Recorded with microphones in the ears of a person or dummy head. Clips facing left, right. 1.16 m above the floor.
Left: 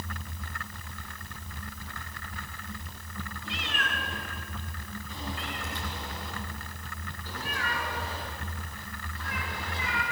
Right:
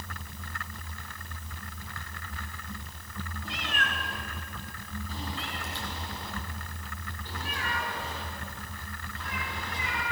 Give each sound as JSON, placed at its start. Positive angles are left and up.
{"t": 3.5, "sound": "a cat meowing", "side_deg": -40, "distance_m": 4.5}